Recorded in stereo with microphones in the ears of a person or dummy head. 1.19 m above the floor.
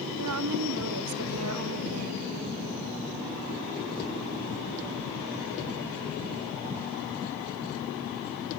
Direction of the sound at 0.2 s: 85° right.